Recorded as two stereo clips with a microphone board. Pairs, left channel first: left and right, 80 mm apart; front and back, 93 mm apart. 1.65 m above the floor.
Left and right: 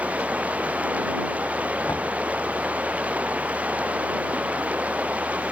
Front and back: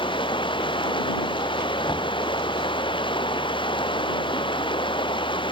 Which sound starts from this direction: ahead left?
Knocking, at 1.9 s.